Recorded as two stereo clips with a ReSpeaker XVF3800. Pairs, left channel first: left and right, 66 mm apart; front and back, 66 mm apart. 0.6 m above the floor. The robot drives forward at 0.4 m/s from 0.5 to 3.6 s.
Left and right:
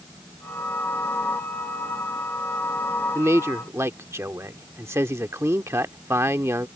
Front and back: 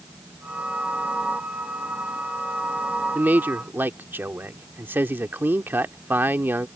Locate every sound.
3.1 s a man speaking: 120° right; by 6.7 s 130° right